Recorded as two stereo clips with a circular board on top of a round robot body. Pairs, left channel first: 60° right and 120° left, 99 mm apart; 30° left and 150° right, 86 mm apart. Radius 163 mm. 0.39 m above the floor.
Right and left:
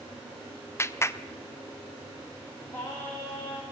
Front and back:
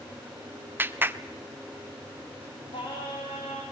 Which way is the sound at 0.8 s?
100° right.